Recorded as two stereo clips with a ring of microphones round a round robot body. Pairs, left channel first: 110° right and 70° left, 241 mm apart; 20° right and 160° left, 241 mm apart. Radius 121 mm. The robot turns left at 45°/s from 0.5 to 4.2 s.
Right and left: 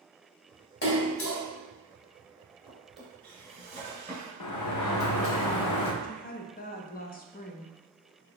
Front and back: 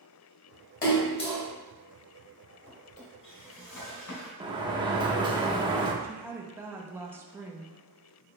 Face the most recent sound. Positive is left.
turn(degrees=-130)